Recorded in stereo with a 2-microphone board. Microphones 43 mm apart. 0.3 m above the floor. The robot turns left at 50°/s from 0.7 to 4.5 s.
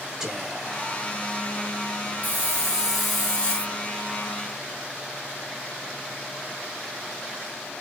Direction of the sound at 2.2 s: 140° right.